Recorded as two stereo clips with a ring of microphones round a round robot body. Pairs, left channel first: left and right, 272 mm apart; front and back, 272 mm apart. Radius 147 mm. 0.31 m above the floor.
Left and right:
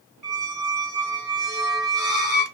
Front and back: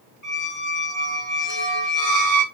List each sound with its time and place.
0.2 s a squeak: straight ahead, 2 m